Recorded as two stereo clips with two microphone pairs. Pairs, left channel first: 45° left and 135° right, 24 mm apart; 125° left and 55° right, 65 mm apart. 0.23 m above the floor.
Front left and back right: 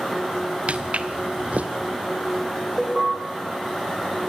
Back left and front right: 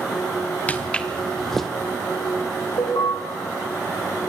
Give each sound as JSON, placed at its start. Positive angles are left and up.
{"t": 0.7, "sound": "footsteps", "azimuth_deg": -160, "distance_m": 1.6}
{"t": 2.8, "sound": "an alarm", "azimuth_deg": 150, "distance_m": 5.5}